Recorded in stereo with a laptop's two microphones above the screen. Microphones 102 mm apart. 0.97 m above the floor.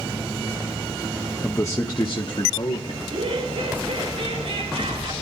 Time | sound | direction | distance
1.4 | a man speaking | 15° left (ahead or behind) | 0.8 m
3.0 | laughter | 75° right (ahead or behind) | 4.5 m